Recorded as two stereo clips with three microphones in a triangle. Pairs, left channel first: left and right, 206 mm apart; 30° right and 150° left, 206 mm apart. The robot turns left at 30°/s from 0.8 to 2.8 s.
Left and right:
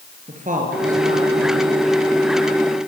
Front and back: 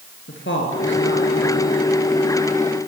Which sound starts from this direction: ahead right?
A woman speaking, at 0.3 s.